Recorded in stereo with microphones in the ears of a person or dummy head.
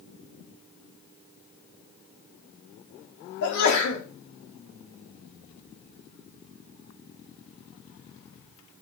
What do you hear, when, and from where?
3.4 s a sneeze: 65° left (ahead or behind), 2 m